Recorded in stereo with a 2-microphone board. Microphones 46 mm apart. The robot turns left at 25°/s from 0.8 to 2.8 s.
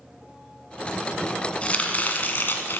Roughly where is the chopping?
Left.